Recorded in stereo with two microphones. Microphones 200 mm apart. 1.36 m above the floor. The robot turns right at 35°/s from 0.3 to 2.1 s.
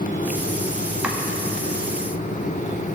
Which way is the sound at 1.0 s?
5° right (ahead or behind).